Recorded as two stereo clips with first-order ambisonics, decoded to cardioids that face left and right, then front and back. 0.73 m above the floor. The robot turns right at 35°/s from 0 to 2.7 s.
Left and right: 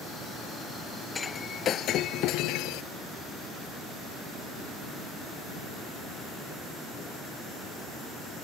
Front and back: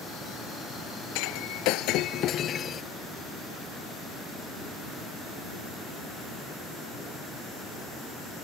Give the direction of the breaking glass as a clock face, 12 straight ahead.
12 o'clock.